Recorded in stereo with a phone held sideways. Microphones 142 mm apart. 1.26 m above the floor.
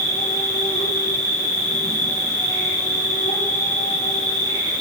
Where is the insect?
70° left (ahead or behind), 6 m.